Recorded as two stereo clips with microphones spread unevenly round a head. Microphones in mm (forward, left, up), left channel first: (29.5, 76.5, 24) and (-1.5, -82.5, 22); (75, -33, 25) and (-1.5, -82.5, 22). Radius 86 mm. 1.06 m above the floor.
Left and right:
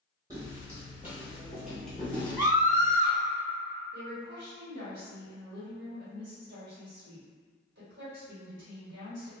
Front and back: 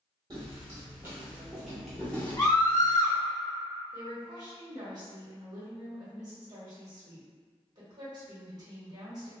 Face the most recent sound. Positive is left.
turn(degrees=-110)